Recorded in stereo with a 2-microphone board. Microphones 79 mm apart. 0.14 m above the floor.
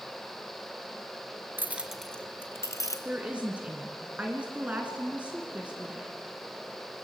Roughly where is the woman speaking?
Centre.